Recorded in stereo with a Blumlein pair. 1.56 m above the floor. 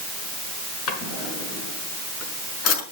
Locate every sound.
0.9 s a drawer: 30° left, 5 m